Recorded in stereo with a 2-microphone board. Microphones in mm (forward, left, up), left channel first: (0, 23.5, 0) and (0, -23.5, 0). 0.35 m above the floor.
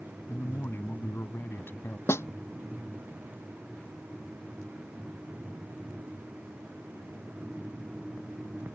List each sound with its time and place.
0.3 s a man speaking: 50° left (ahead or behind)
2.1 s a snare drum: 65° left (ahead or behind)